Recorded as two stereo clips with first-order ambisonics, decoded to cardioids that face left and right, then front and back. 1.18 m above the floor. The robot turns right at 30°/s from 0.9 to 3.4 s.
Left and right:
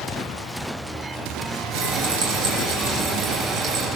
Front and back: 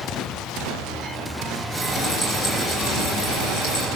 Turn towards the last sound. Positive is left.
turn(degrees=-35)